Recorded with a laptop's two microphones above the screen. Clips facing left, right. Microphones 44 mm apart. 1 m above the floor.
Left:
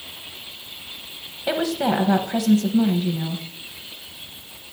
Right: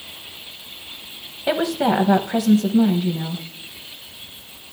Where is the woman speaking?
15° right (ahead or behind), 0.7 m.